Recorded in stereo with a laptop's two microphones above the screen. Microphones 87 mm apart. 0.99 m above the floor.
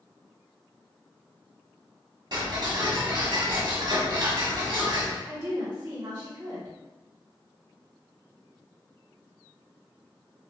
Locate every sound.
2.3 s ticking: 55° right (ahead or behind), 1.4 m
5.2 s a woman speaking: 45° right (ahead or behind), 1.4 m